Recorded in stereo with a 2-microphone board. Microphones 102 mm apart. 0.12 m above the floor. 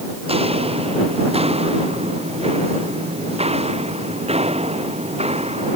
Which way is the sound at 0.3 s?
70° right (ahead or behind).